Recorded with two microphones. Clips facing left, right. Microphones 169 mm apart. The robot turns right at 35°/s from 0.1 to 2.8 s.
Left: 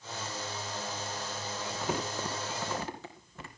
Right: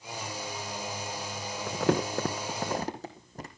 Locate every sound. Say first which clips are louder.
1.7 s crumpling: right 8 dB; 75° right (ahead or behind), 3 m; by 3.5 s 35° right (ahead or behind), 3 m